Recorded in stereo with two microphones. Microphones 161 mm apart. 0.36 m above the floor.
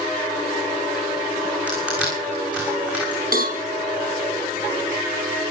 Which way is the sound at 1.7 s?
10° right (ahead or behind).